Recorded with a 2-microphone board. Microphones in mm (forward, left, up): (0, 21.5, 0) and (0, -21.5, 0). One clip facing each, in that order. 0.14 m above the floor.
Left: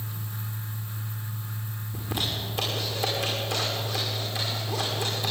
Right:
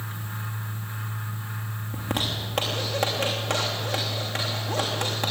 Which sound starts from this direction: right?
A zipper, at 1.9 s.